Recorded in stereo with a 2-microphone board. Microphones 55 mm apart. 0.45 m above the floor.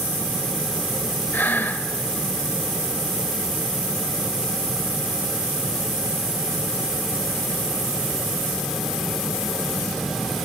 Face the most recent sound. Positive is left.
turn(degrees=35)  # may be behind; listen again after turning